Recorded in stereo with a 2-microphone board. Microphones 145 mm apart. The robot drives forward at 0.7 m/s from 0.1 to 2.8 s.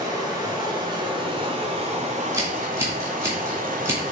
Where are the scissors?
20° right (ahead or behind), 2 m.